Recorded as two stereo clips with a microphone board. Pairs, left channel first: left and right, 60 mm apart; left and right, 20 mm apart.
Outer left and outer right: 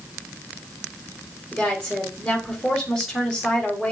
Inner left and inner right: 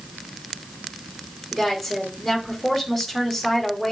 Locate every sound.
1.5 s a woman speaking: 5° left (ahead or behind), 2.5 m